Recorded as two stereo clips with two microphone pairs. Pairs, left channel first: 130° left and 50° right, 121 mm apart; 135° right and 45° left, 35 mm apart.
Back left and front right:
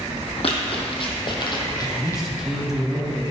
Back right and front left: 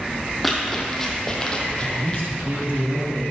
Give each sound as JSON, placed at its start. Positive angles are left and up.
{"t": 0.4, "sound": "running footsteps", "azimuth_deg": 140, "distance_m": 2.0}
{"t": 1.8, "sound": "a man speaking", "azimuth_deg": 35, "distance_m": 2.0}